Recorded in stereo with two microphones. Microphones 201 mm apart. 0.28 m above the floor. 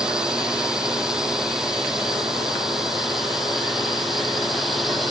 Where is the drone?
5° right (ahead or behind); by 5.1 s centre (ahead or behind).